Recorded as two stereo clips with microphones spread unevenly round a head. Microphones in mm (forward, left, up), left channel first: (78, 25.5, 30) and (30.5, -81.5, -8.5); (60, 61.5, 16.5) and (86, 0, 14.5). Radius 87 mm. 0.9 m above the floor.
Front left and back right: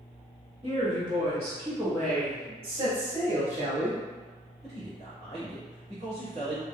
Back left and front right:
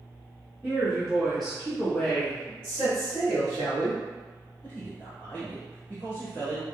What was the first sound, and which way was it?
A woman speaking, 145° right.